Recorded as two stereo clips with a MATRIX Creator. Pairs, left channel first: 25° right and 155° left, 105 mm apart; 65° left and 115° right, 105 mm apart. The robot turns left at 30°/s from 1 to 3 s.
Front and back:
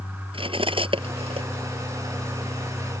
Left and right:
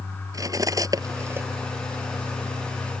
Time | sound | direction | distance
0.3 | cutlery clinking | 170° right | ?